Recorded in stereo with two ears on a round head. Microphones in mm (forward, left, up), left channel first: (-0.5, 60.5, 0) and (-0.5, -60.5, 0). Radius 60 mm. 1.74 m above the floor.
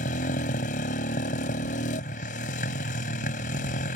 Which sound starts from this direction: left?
A motorcycle, at 0.0 s.